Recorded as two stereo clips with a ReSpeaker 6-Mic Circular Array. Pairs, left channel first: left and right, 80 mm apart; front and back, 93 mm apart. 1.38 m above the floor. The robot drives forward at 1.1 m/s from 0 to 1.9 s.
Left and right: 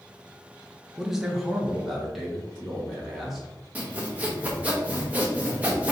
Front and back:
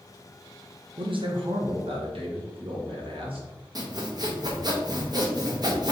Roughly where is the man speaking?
Behind.